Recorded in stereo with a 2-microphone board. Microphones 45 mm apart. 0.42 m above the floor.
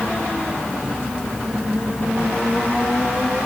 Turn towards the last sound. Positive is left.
No sound to turn to.